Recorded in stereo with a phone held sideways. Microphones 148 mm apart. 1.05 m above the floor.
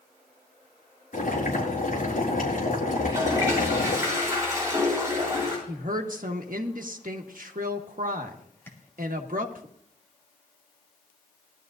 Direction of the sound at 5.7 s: 65° right (ahead or behind).